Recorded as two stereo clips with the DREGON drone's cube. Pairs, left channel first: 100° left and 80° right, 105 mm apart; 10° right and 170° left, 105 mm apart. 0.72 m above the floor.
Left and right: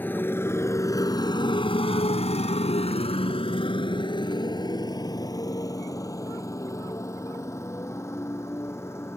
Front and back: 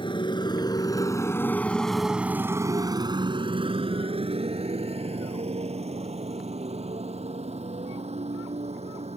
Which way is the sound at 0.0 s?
30° left.